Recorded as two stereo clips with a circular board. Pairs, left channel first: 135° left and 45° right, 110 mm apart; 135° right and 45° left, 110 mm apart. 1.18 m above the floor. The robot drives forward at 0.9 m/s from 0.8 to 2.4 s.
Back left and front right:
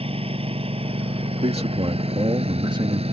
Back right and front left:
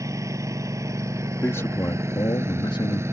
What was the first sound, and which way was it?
A lawn mower, 15° right.